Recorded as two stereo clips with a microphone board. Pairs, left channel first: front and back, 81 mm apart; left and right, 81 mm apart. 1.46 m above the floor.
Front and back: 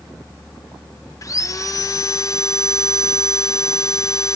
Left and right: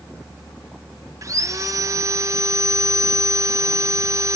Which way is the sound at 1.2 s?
45° right.